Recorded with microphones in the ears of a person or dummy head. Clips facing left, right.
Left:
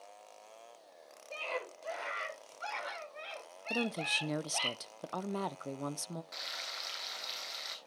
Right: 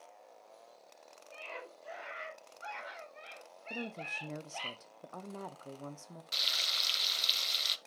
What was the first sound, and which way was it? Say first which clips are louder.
A scream: left 8 dB; 70° left (ahead or behind).